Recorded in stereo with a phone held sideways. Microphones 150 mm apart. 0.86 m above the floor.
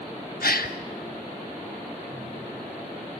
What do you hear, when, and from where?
0.4 s a gasp: 80° left, 1.4 m